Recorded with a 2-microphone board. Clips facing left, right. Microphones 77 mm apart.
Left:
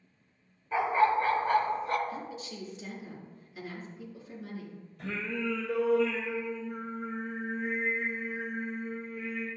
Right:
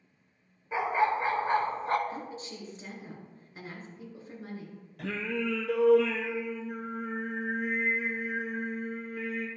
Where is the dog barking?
15° right (ahead or behind), 1.3 m; by 2.0 s 35° right (ahead or behind), 0.6 m.